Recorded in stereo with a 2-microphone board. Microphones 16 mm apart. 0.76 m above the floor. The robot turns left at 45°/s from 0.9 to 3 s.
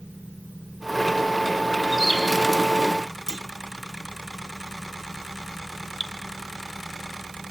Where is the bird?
30° right (ahead or behind), 5.5 m; by 2.2 s 45° right (ahead or behind), 5.5 m.